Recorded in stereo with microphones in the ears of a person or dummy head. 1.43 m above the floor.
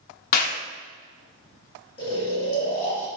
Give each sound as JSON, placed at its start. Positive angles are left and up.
{"t": 0.3, "sound": "a clap", "side_deg": 45, "distance_m": 0.5}
{"t": 2.0, "sound": "snoring", "side_deg": 25, "distance_m": 1.2}